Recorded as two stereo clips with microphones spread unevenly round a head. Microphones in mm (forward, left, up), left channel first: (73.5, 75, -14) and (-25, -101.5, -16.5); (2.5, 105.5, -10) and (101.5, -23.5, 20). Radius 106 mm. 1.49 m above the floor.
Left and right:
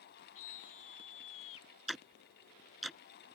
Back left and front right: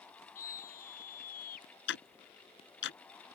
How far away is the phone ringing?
No phone ringing in this recording.